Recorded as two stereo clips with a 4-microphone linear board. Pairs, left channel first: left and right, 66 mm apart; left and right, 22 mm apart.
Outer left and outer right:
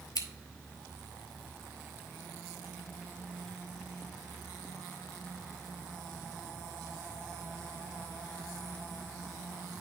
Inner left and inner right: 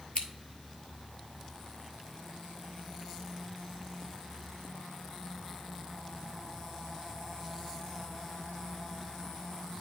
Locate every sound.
0.1 s scissors: 65° left (ahead or behind), 0.8 m